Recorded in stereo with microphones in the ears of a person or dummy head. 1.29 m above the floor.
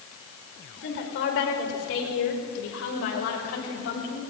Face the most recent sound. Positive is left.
turn(degrees=80)